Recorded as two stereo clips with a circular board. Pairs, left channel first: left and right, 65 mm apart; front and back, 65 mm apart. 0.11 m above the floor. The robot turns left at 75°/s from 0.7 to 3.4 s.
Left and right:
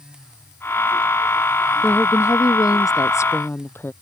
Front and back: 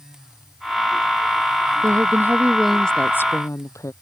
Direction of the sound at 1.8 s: 155° left.